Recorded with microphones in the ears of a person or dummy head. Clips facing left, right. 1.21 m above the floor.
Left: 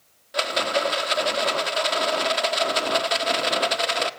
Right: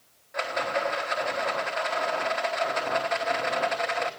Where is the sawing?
No sawing in this recording.